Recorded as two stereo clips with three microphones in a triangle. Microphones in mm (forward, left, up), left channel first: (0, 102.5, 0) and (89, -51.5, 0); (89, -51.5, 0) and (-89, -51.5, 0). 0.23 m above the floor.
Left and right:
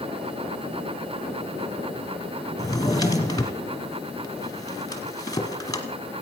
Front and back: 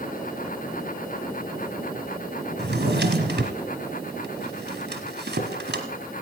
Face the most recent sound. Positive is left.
turn(degrees=-170)